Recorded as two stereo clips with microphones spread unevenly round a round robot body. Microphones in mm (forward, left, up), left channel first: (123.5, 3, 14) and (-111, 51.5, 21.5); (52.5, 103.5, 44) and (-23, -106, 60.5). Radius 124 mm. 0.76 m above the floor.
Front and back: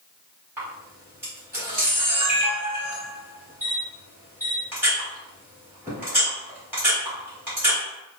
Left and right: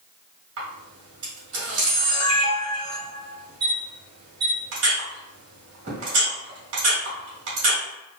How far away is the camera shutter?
About 1.5 m.